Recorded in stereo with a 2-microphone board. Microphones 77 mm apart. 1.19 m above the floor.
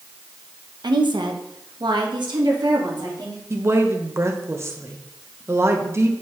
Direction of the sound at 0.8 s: 70° right (ahead or behind).